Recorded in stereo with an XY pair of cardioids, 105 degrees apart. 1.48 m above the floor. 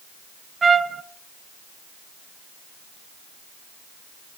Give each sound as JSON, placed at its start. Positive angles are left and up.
{"t": 0.6, "sound": "a trumpet", "azimuth_deg": -30, "distance_m": 0.7}